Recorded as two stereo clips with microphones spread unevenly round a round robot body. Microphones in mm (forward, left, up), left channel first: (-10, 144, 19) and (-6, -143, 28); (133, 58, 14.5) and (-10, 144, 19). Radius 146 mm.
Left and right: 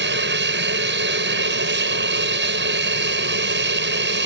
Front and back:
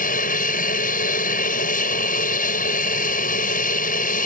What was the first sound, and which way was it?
An aircraft, 45° right.